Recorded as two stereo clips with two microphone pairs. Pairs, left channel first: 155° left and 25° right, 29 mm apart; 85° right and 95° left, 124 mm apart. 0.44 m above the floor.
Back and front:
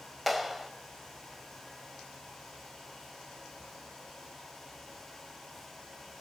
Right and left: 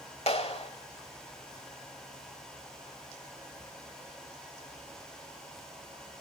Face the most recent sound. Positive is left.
turn(degrees=-115)